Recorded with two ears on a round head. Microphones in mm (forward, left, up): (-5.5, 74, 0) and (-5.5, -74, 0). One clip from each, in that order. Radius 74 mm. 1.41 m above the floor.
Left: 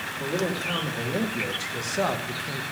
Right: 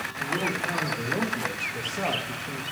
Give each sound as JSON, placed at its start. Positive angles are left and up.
{"t": 0.2, "sound": "a man speaking", "side_deg": 80, "distance_m": 3.0}